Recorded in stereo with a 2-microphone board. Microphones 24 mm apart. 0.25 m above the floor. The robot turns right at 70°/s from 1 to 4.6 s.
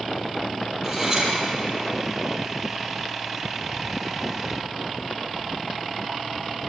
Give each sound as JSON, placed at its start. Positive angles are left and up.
{"t": 0.8, "sound": "cutlery clinking", "side_deg": -10, "distance_m": 4.5}